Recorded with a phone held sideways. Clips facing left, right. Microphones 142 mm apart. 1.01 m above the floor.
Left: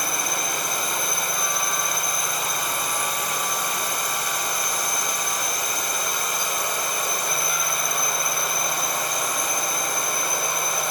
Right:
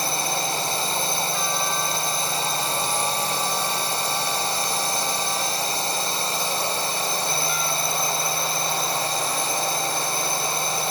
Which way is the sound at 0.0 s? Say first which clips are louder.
Right 2 dB; 30° right (ahead or behind).